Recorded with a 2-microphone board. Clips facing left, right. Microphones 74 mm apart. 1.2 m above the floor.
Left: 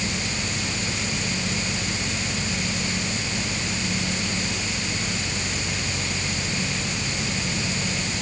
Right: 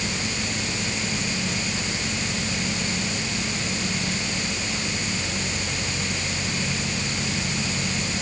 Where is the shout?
No shout in this recording.